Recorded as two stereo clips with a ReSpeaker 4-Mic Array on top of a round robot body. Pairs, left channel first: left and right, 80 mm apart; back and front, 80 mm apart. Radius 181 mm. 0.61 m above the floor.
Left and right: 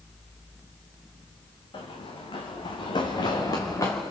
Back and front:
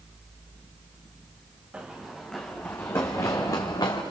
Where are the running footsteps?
80° left, 3 m; by 4.0 s 145° left, 3 m.